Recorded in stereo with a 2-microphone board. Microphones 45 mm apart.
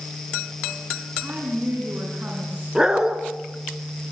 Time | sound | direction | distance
1.2 | a woman speaking | 40° right (ahead or behind) | 7 m
2.8 | a dog barking | 10° right (ahead or behind) | 2.5 m